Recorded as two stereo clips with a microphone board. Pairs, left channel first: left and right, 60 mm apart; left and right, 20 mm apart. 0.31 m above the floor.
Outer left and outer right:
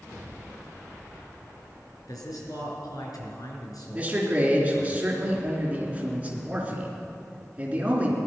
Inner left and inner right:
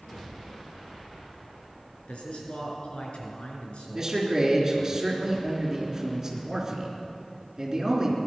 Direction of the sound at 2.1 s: 75° left (ahead or behind).